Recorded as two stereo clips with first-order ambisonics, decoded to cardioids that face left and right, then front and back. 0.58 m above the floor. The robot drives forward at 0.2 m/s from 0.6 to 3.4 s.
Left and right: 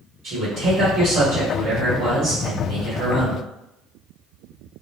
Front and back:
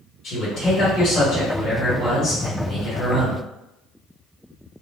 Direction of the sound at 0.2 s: 60° right.